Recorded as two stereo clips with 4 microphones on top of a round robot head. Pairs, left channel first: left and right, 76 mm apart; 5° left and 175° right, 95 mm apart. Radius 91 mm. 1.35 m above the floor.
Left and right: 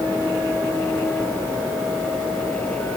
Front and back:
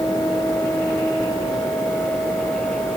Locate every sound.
Only background noise.